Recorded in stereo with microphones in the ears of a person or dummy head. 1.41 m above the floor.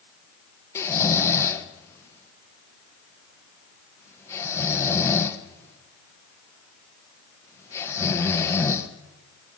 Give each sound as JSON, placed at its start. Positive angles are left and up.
{"t": 0.8, "sound": "snoring", "side_deg": 15, "distance_m": 1.1}